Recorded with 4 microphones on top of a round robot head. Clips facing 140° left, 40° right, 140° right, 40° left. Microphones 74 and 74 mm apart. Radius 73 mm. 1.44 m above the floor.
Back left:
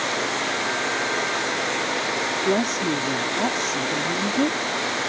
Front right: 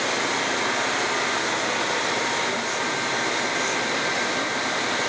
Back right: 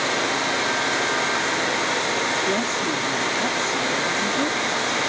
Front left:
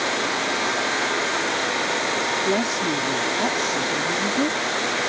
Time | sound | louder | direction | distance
2.5 | a woman speaking | back left 4 dB, front left 1 dB | 115° left | ?